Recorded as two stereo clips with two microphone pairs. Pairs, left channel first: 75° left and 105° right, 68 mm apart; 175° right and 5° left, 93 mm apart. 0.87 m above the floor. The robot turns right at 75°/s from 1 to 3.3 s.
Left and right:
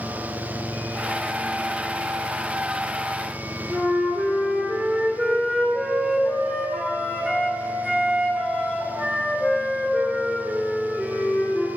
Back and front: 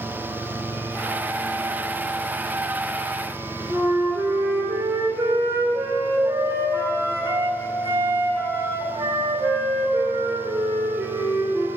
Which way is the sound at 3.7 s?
50° right.